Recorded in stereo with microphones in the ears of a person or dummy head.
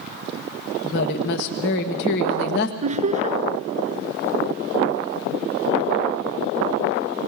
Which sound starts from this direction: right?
Laughter, at 2.8 s.